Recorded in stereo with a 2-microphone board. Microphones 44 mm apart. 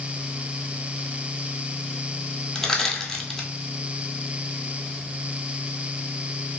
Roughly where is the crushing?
Centre.